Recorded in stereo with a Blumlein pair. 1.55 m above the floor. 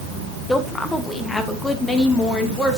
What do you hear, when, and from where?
0.5 s a woman speaking: 10° left, 1.6 m